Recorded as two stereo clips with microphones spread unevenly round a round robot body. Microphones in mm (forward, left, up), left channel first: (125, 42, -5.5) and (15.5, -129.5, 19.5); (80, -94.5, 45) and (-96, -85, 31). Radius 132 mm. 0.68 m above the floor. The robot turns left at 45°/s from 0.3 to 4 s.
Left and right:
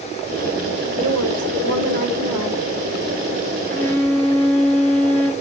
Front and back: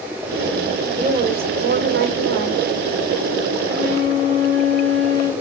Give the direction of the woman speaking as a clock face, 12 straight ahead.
4 o'clock.